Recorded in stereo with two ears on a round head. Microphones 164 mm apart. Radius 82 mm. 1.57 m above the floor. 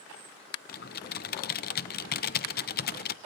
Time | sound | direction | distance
0.7 | typing on a keyboard | 55° left (ahead or behind) | 0.6 m